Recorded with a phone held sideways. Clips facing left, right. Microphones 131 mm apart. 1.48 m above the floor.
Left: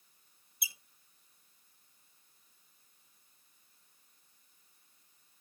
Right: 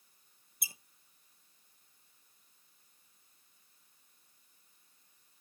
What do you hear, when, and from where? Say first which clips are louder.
0.6 s a squeak: left 2 dB; 45° right (ahead or behind), 0.8 m